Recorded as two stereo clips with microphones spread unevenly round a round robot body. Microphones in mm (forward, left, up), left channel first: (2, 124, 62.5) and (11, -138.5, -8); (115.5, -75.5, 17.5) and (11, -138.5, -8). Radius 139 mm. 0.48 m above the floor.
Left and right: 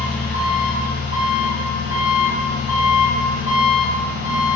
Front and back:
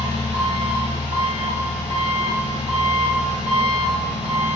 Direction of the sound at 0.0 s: 145° right.